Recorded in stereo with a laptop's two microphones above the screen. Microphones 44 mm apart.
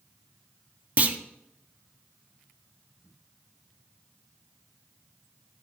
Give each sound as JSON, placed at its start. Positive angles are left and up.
{"t": 1.0, "sound": "a clunk", "side_deg": -35, "distance_m": 0.6}